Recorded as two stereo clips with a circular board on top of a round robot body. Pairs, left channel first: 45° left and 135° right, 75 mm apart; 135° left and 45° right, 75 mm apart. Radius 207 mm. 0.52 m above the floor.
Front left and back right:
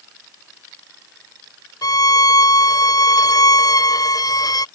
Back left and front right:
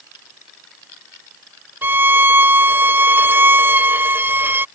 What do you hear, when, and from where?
1.8 s a violin: 15° left